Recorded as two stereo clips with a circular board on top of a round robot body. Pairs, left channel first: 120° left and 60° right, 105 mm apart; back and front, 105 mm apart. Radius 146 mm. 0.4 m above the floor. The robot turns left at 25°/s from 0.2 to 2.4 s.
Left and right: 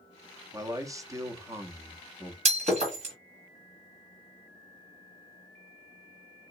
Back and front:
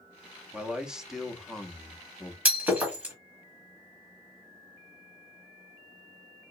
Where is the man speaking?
70° right, 0.8 m; by 2.4 s 115° right, 0.8 m.